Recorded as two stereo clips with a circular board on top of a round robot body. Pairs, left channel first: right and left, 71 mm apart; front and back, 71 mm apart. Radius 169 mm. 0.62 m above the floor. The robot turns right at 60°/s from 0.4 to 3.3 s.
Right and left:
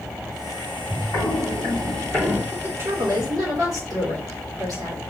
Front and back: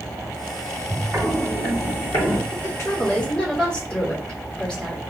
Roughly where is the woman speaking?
Ahead left.